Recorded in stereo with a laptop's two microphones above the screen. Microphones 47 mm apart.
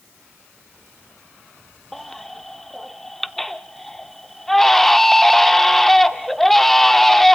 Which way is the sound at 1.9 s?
5° left (ahead or behind).